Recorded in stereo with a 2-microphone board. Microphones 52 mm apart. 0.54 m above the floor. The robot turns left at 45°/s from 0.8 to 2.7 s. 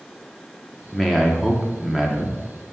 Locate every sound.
0.9 s a man speaking: 5° left (ahead or behind), 0.7 m; by 2.4 s 15° right (ahead or behind), 0.7 m